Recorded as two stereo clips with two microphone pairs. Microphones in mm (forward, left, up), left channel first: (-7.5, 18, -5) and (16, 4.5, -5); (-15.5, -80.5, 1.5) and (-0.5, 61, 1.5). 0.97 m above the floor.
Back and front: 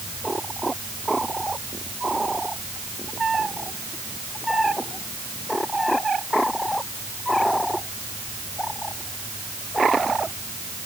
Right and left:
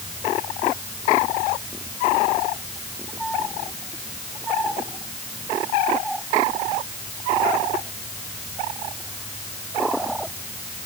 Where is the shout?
No shout in this recording.